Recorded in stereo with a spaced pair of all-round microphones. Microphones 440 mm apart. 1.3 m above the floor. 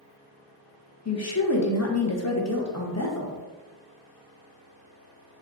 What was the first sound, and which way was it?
A woman speaking, 35° left (ahead or behind).